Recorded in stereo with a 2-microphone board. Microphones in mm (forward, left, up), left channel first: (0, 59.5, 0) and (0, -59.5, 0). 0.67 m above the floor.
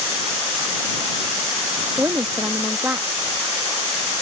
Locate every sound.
2.0 s a woman speaking: 20° right (ahead or behind)